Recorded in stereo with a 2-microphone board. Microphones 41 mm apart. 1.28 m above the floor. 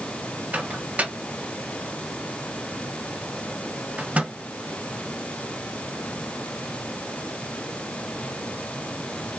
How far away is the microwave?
About 1.6 m.